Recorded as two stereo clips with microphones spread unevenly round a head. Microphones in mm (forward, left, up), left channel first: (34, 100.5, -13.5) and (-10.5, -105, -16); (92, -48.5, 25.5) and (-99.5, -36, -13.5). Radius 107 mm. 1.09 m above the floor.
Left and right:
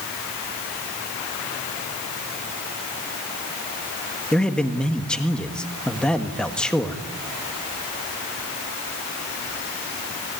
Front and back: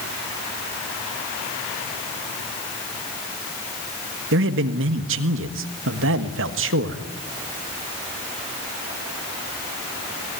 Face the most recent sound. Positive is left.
turn(degrees=165)